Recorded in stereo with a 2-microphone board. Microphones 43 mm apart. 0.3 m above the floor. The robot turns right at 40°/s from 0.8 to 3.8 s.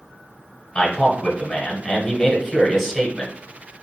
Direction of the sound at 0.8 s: 20° left (ahead or behind).